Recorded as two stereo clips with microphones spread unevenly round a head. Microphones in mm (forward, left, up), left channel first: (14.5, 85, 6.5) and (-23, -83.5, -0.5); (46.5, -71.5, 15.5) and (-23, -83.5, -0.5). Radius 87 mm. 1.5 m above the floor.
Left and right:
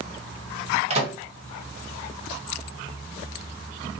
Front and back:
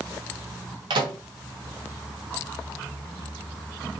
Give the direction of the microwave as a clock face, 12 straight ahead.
5 o'clock.